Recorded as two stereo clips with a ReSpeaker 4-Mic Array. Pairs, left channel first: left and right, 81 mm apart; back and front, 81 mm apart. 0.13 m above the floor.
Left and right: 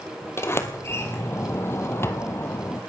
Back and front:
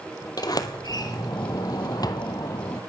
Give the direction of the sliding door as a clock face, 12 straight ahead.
7 o'clock.